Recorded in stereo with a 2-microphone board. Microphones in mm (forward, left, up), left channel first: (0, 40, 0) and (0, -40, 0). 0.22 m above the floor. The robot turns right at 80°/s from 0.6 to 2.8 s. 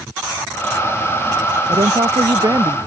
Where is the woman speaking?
110° right; by 2.8 s 20° right.